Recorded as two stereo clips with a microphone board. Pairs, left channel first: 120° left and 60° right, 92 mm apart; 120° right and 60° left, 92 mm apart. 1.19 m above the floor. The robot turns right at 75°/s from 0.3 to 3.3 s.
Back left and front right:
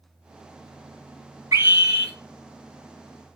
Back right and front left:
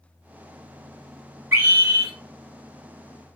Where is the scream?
Straight ahead, 3.5 m; by 2.1 s 45° left, 3.5 m.